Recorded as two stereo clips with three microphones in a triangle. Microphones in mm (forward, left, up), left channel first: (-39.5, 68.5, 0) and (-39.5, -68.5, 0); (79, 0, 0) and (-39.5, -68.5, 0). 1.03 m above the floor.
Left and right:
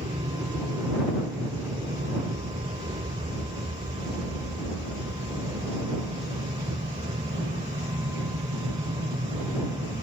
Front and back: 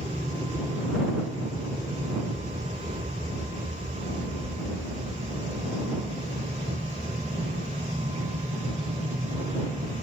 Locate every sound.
0.0 s an aircraft: 100° right; by 10.0 s 105° right